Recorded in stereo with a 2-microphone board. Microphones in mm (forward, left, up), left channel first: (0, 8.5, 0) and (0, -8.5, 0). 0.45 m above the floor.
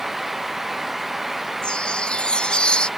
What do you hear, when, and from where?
1.6 s a chime: 75° left (ahead or behind)